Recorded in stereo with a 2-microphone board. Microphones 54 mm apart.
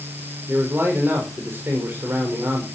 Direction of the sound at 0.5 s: 45° right (ahead or behind).